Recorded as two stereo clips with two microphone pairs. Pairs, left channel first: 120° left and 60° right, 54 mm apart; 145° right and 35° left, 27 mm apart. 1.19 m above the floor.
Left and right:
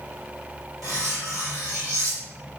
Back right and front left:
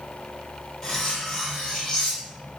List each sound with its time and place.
0.8 s cutlery clinking: 75° right, 1.1 m